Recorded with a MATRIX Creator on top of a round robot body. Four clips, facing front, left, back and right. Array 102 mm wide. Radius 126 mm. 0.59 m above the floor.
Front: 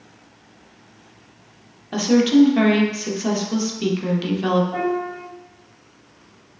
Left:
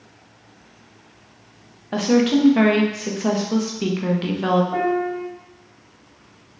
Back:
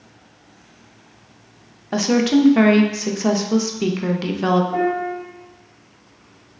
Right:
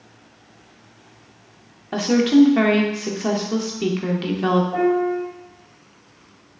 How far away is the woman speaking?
About 0.7 m.